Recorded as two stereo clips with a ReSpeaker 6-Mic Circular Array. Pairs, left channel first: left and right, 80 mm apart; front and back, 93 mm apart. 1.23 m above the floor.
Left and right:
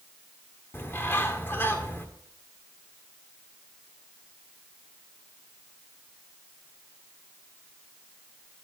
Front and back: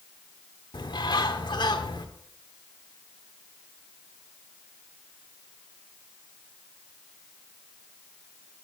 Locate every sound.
0.7 s a bird: 30° left, 1.8 m